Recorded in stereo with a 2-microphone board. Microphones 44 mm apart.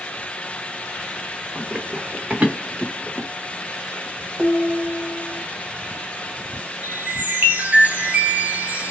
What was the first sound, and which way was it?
Running footsteps, 40° right (ahead or behind).